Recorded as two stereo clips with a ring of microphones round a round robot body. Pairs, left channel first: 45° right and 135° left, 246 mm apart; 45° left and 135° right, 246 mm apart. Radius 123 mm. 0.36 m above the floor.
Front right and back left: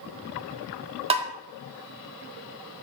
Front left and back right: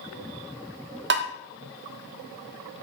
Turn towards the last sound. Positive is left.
turn(degrees=-165)